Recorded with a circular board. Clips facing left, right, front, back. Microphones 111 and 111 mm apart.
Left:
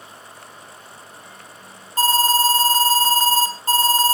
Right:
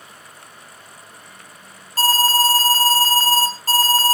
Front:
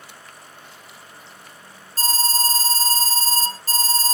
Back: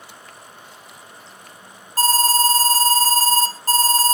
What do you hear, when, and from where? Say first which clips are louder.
2.0 s an alarm: even, back 7 dB; 160° left, 1.6 m